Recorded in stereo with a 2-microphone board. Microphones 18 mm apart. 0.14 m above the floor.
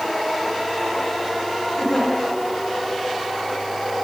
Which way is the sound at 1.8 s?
35° left (ahead or behind).